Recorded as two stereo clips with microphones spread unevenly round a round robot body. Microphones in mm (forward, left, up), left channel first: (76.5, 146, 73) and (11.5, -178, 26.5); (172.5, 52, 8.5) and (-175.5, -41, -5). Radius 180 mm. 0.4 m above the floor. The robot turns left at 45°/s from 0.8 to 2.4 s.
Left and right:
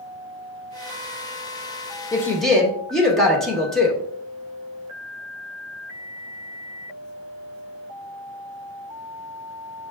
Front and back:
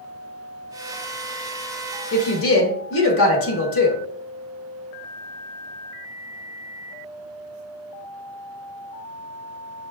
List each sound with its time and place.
2.1 s a woman speaking: 5° right, 1.0 m; by 4.0 s 20° right, 1.0 m